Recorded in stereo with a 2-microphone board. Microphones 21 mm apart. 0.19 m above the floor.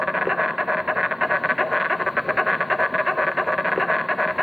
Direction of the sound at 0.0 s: 30° right (ahead or behind).